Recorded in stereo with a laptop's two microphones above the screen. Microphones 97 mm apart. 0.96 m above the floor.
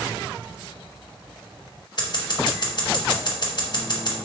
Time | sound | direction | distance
2.0 | scissors | 50° left (ahead or behind) | 0.9 m